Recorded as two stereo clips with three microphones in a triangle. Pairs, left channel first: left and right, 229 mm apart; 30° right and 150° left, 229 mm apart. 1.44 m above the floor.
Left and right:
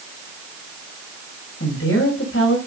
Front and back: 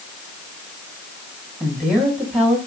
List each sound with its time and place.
1.6 s a woman speaking: 65° left, 7.5 m